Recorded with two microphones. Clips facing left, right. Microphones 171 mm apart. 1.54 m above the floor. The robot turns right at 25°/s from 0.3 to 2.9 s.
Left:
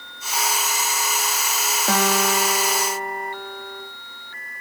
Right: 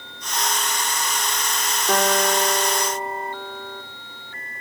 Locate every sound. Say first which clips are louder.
1.9 s a guitar: right 1 dB; 90° left, 4 m; by 3.8 s 65° left (ahead or behind), 4 m